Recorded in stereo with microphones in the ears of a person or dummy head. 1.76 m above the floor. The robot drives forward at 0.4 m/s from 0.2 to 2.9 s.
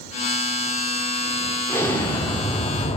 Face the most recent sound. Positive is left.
turn(degrees=30)  # may be behind; listen again after turning